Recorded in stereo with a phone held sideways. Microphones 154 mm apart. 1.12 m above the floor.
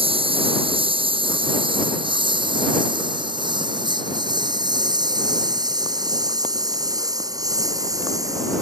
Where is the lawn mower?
35° right (ahead or behind); by 8.6 s 20° right (ahead or behind).